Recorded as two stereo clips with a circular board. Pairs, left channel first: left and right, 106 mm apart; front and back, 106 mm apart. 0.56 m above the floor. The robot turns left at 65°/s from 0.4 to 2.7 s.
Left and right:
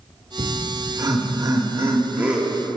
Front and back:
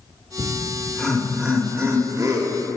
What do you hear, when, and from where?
0.4 s laughter: 35° right, 1.0 m; by 2.7 s 175° left, 1.0 m